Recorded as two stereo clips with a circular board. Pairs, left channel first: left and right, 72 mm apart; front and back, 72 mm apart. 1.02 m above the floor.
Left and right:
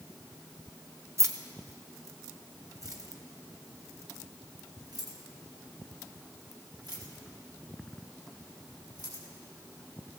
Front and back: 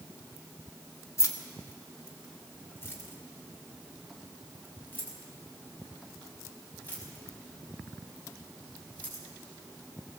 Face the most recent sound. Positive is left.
turn(degrees=-65)